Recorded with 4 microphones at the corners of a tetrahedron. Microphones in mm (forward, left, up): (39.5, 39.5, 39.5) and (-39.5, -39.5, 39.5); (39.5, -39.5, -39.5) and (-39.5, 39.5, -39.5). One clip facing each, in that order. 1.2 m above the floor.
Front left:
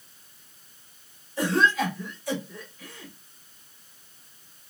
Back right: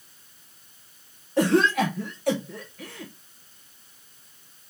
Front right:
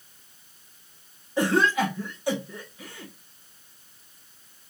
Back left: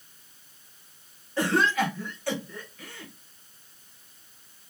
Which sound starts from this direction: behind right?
A cough, at 1.4 s.